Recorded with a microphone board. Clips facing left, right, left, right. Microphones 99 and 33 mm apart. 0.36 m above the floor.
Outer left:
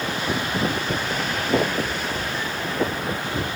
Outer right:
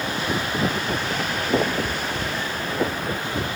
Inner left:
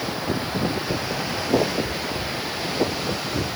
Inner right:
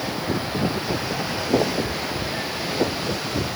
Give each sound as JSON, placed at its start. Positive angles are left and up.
{"t": 1.7, "sound": "a cat meowing", "side_deg": -50, "distance_m": 5.0}